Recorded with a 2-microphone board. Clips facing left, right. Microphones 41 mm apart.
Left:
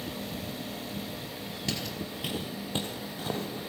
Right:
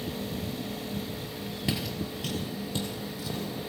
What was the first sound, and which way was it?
Footsteps, 15° right (ahead or behind).